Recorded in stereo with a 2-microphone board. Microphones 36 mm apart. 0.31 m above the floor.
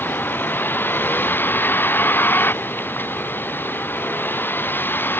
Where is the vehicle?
80° left; by 5.2 s 85° left.